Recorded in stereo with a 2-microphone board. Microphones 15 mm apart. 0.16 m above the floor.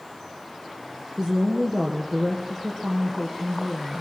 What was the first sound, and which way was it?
A woman speaking, 70° right (ahead or behind).